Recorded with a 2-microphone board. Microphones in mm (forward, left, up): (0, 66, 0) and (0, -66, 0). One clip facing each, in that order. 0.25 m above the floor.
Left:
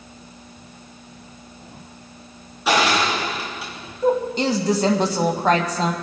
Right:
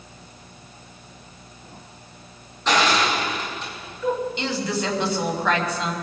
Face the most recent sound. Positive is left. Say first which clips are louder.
# left 5 dB
turn(degrees=40)  # may be behind; listen again after turning